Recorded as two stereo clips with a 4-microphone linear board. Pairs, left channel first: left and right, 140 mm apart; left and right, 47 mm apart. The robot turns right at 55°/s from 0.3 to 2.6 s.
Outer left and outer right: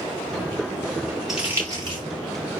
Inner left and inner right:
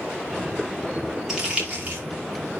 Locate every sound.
1.3 s crumpling: 5° right (ahead or behind), 5 m; by 2.0 s 45° right (ahead or behind), 5 m